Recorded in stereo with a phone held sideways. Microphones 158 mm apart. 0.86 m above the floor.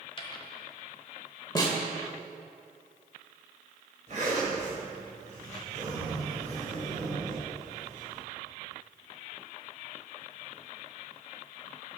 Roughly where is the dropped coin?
Left.